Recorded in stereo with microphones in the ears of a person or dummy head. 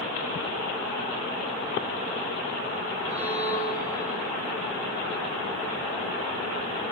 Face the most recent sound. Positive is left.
turn(degrees=-75)  # may be behind; listen again after turning